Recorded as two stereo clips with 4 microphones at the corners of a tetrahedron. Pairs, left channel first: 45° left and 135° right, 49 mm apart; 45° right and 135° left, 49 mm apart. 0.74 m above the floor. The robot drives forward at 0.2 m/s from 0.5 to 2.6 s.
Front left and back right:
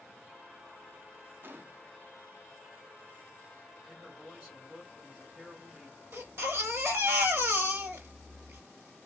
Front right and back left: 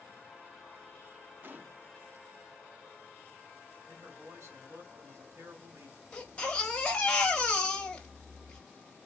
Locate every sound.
1.4 s a gunshot: straight behind, 0.5 m
3.9 s a man speaking: 150° left, 2.5 m
6.1 s a baby crying: 110° right, 1.0 m